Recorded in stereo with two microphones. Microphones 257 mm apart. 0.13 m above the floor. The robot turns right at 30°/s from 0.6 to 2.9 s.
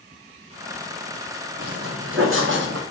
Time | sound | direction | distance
1.6 | footsteps | 60° right (ahead or behind) | 1.4 m